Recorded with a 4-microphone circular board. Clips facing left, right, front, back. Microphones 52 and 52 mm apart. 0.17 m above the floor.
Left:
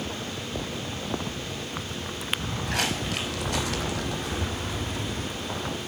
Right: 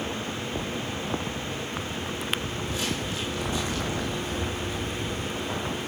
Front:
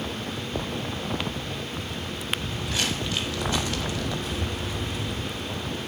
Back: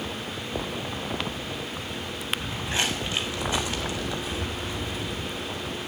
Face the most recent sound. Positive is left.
turn(degrees=90)